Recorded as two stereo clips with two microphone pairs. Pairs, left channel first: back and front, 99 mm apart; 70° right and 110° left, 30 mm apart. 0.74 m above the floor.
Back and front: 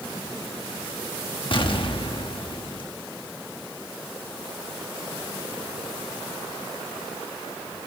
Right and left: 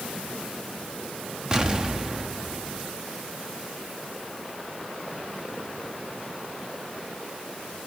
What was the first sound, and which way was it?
An explosion, 170° left.